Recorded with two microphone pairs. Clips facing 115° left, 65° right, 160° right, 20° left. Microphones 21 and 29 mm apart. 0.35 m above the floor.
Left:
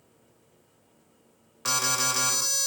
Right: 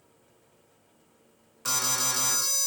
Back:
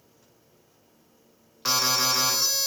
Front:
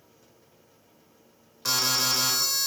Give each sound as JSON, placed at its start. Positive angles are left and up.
{"t": 1.6, "sound": "an alarm", "azimuth_deg": 150, "distance_m": 0.6}